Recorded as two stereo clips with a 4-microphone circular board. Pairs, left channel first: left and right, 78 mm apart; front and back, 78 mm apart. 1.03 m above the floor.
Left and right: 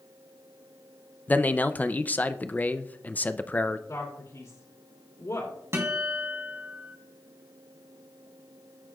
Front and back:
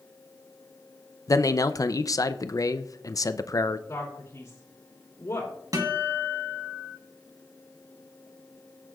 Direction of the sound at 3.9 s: 50° left.